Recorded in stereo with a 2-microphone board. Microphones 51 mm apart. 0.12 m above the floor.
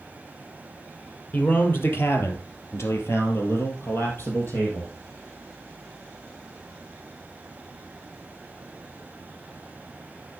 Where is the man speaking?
40° left (ahead or behind), 3 m.